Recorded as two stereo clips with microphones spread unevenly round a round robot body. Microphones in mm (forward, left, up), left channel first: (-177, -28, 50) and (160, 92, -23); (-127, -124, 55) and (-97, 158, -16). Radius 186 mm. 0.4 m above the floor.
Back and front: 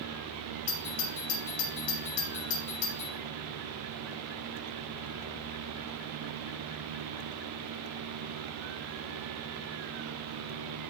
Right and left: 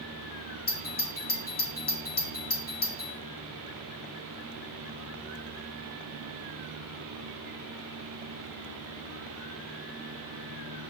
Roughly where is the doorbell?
Behind right.